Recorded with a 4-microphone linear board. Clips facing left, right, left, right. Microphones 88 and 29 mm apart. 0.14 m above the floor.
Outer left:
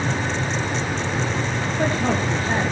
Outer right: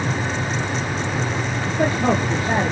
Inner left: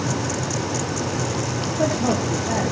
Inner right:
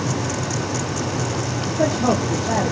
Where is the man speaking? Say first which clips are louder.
Outer right 3 dB, inner right 3 dB; 20° right (ahead or behind), 4.5 m.